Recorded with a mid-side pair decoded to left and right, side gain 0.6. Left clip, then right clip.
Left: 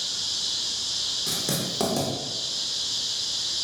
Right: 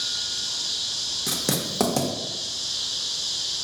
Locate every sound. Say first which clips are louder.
1.3 s writing: right 1 dB; 30° right, 0.7 m